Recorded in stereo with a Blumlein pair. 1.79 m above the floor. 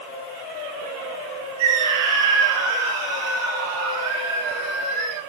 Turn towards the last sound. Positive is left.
turn(degrees=-50)